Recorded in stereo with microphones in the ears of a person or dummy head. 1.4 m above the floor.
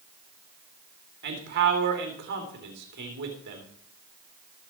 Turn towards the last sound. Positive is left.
turn(degrees=-60)  # may be behind; listen again after turning